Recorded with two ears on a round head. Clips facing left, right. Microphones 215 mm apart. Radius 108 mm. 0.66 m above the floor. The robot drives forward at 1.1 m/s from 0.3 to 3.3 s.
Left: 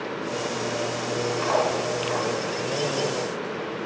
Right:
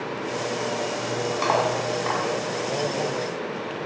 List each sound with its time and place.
1.4 s cutlery clinking: 60° right (ahead or behind), 4 m; by 2.2 s 70° right (ahead or behind), 3.5 m